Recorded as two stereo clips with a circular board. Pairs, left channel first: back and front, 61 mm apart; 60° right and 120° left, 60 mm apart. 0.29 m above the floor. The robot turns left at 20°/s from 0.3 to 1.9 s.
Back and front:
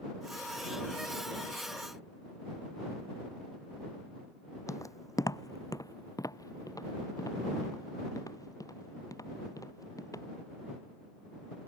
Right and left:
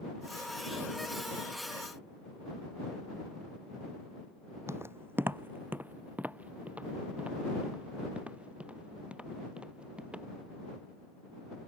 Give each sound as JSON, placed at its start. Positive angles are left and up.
{"t": 4.7, "sound": "footsteps", "azimuth_deg": 155}